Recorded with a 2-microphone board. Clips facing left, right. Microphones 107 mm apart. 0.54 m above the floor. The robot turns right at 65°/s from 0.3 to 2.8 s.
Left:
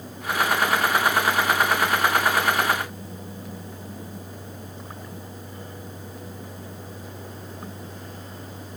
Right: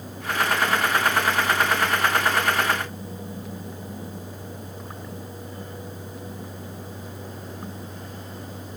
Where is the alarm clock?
No alarm clock in this recording.